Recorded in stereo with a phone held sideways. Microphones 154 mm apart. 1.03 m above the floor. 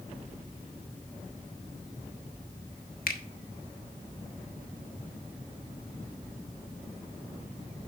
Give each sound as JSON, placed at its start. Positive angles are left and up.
{"t": 3.1, "sound": "a finger snap", "side_deg": 70, "distance_m": 1.1}